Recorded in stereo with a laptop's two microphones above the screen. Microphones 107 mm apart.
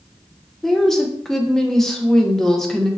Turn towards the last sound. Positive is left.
turn(degrees=5)  # may be behind; listen again after turning